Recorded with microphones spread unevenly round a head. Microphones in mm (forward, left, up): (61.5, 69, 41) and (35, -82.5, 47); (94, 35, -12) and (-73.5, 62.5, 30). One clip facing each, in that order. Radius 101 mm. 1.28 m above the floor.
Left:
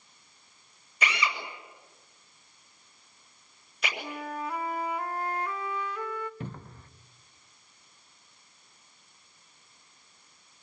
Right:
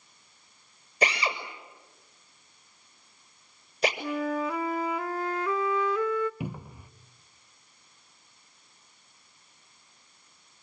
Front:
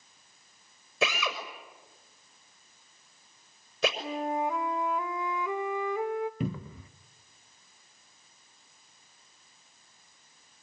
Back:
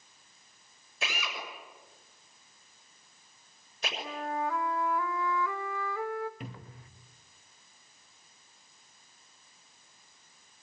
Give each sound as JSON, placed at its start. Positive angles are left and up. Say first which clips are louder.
{"t": 1.0, "sound": "a drill", "louder": "right 4 dB, front 8 dB", "azimuth_deg": -45, "distance_m": 6.5}
{"t": 4.0, "sound": "a flute", "louder": "right 7 dB, front 4 dB", "azimuth_deg": -90, "distance_m": 0.8}
{"t": 6.4, "sound": "a cupboard door", "louder": "right 4 dB, front 11 dB", "azimuth_deg": -20, "distance_m": 0.8}